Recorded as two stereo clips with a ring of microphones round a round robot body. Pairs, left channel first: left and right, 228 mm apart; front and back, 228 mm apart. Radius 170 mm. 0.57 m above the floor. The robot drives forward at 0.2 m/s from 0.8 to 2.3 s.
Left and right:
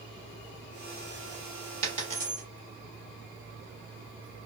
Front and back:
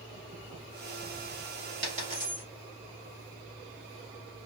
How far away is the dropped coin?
About 0.6 m.